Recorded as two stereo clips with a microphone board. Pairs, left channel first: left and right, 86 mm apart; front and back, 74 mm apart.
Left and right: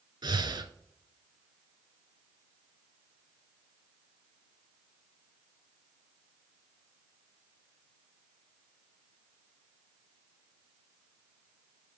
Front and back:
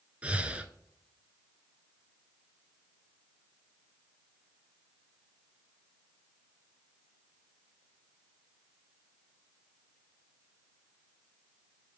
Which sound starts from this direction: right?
Breathing, at 0.2 s.